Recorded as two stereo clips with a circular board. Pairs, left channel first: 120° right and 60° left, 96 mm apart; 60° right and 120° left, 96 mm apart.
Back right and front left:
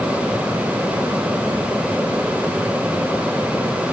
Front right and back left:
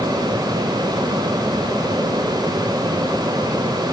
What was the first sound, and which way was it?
Only background noise.